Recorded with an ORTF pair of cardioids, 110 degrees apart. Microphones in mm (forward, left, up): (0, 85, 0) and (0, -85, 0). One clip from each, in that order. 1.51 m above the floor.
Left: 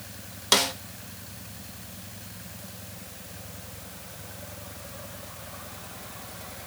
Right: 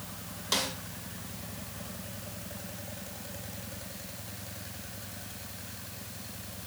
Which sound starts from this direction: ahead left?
A snare drum, at 0.5 s.